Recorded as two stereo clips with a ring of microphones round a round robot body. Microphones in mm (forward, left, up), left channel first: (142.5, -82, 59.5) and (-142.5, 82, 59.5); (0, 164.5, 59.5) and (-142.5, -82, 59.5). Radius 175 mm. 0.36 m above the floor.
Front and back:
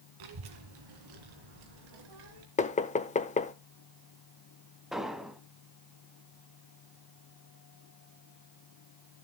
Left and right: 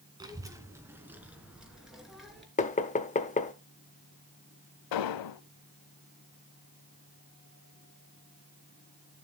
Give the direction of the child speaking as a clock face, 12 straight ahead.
7 o'clock.